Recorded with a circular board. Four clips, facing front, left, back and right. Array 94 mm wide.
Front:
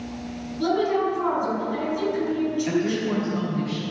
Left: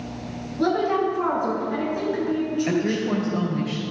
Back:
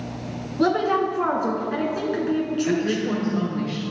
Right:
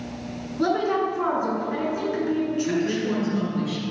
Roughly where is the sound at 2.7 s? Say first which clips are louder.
Left 1 dB, back 1 dB; left.